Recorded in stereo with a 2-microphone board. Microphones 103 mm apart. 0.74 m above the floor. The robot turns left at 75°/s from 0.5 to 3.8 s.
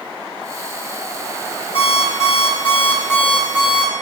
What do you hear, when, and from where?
1.8 s an alarm clock: 120° left, 3 m; by 3.9 s 35° right, 3 m